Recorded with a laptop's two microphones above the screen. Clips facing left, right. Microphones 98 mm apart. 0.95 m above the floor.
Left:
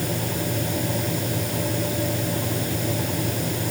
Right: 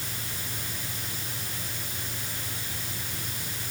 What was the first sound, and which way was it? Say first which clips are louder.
A fan: left 14 dB; 70° left (ahead or behind).